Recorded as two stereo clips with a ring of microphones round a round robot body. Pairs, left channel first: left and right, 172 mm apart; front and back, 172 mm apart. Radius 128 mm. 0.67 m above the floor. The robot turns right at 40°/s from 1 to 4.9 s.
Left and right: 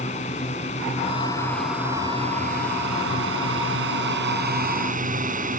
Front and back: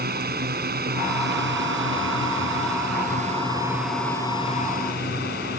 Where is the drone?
155° left; by 5.6 s 50° right.